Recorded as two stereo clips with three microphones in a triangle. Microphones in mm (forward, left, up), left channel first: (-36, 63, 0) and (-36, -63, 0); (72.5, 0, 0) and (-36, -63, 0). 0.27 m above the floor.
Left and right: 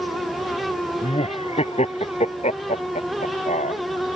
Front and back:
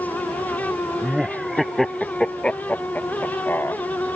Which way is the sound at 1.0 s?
125° left.